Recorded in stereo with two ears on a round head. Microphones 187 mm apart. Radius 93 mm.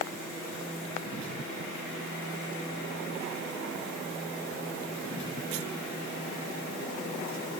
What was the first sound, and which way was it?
Only background noise.